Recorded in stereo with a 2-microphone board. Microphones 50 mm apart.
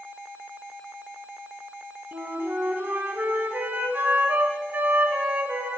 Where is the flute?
40° right (ahead or behind), 0.8 m.